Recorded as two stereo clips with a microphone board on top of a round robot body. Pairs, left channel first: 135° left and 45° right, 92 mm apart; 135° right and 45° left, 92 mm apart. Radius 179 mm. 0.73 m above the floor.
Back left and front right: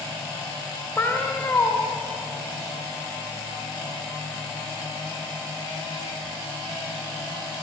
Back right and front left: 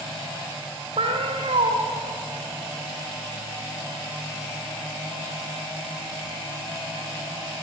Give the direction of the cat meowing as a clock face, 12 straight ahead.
10 o'clock.